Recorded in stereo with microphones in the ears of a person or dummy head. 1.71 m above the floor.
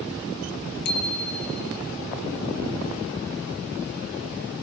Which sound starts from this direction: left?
A bicycle bell, at 0.8 s.